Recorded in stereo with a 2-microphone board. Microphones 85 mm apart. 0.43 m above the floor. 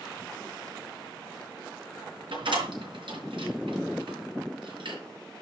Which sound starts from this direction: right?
A door slam, at 2.3 s.